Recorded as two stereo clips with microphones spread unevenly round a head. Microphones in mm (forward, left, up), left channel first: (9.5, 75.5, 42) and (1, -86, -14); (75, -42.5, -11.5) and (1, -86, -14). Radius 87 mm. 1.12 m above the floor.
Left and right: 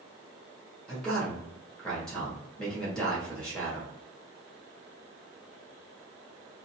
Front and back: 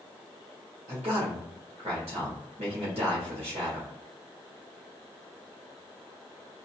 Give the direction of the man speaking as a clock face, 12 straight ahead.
6 o'clock.